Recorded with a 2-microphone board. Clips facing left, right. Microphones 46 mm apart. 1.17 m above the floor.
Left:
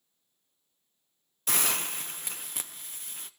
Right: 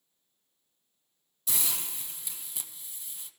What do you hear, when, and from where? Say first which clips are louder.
1.5 s a hiss: left 7 dB; 55° left (ahead or behind), 0.9 m